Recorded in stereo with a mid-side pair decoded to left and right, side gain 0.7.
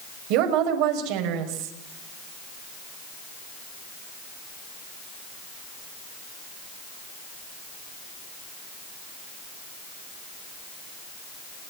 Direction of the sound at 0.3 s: 70° right.